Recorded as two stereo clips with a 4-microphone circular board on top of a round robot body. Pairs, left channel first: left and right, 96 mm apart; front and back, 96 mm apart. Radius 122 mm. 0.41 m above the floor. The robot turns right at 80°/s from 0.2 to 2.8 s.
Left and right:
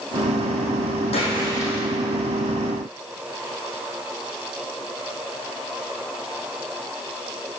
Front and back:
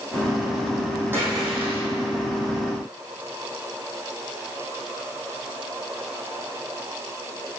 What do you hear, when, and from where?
1.1 s a splash: 110° left, 5 m; by 1.9 s 170° left, 5 m